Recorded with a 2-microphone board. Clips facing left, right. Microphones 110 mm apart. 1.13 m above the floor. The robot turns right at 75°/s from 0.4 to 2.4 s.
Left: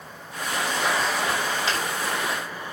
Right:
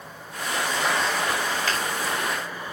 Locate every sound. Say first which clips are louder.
1.7 s a finger snap: left 1 dB; 20° left (ahead or behind), 4.5 m; by 1.8 s 10° left (ahead or behind), 4.5 m